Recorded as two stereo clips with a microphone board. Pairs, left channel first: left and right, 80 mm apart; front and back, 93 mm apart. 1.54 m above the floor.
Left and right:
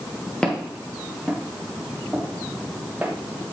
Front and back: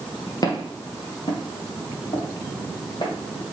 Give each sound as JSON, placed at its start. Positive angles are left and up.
{"t": 0.4, "sound": "footsteps", "azimuth_deg": 15, "distance_m": 2.0}